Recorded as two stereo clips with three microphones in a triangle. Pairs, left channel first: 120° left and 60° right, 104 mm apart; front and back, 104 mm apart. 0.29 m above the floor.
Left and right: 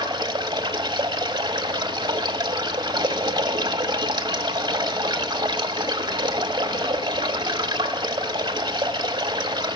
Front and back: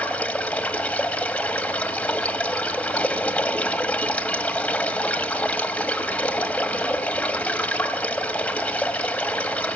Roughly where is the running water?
Right.